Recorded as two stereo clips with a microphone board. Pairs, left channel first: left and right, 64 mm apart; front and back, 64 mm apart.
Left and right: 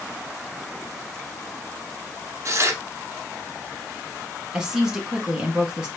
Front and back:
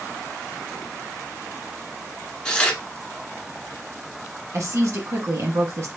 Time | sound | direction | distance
2.5 | tearing paper | 70° right | 1.0 m
4.5 | a woman speaking | 165° right | 1.8 m